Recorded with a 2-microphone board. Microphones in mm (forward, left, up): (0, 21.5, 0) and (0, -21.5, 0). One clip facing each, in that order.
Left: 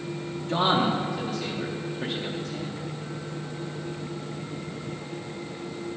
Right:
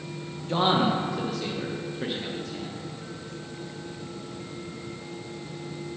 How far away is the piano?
I don't hear a piano.